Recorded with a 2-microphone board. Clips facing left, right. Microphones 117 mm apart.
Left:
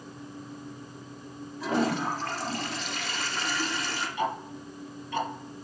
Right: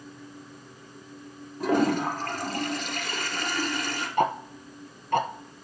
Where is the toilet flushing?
50° right (ahead or behind), 2.5 m.